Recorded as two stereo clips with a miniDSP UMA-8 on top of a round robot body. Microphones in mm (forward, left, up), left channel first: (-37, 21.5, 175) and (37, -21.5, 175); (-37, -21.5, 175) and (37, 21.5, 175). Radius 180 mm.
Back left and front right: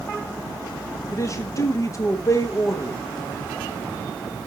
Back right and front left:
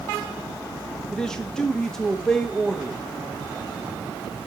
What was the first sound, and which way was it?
A man speaking, 130° left.